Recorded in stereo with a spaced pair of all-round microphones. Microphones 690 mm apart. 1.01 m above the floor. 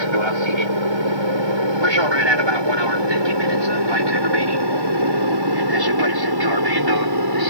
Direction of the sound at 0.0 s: 40° right (ahead or behind).